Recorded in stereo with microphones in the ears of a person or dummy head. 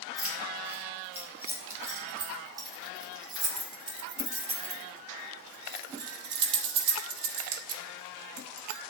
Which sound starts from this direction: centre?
Keys jangling, at 0.2 s.